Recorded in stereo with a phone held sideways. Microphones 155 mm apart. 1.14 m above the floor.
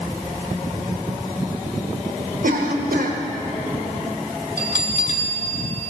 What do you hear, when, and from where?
2.4 s a cough: 75° right (ahead or behind), 1.1 m
4.6 s a bell: 55° left (ahead or behind), 1.2 m